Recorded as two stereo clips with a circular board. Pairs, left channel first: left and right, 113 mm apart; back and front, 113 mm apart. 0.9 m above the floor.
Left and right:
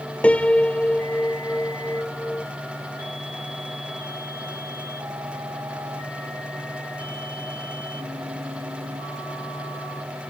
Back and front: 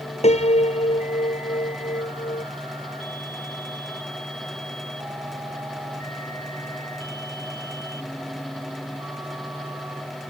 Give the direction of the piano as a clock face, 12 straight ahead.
6 o'clock.